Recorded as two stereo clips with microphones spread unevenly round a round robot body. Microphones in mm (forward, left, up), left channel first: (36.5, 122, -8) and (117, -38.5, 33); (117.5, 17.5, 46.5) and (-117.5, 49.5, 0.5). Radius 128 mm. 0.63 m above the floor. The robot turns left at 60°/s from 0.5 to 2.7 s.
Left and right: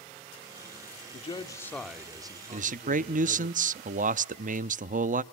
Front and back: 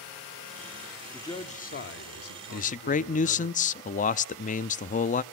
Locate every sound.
1.1 s a man speaking: 80° left, 1.8 m; by 3.5 s 15° right, 1.8 m
2.5 s a man speaking: 45° right, 0.5 m; by 5.2 s 55° right, 0.5 m